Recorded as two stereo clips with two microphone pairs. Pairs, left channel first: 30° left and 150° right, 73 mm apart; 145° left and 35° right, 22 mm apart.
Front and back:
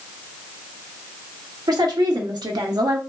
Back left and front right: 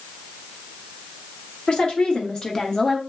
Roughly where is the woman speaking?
Behind.